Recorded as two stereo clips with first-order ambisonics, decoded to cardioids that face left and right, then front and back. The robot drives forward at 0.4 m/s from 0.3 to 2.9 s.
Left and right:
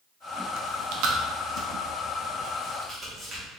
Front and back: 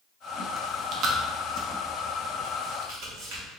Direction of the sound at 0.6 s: 105° right.